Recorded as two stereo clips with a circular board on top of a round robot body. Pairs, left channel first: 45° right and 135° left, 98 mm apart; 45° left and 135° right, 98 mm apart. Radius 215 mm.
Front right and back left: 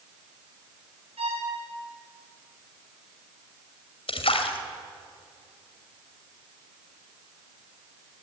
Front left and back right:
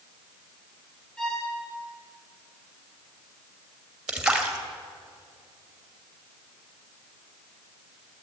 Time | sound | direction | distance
1.2 | a violin | 130° left | 6 m
4.1 | a splash | 50° right | 1.6 m